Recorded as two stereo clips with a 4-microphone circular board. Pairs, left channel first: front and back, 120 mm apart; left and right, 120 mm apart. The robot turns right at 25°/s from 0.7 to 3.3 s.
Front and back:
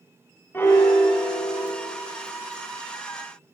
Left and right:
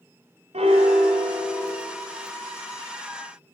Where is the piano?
70° right, 1.6 m; by 1.7 s 45° right, 1.6 m.